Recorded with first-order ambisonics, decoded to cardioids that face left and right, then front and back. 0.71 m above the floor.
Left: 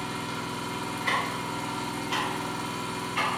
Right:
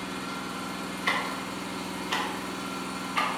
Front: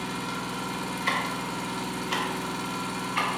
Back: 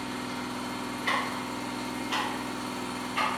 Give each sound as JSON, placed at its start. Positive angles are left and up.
{"t": 0.0, "sound": "an engine running", "azimuth_deg": 10, "distance_m": 0.9}
{"t": 1.1, "sound": "ticking", "azimuth_deg": -45, "distance_m": 0.7}